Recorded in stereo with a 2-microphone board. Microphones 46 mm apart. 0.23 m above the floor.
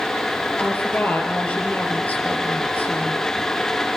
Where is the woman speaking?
35° left (ahead or behind), 5 m.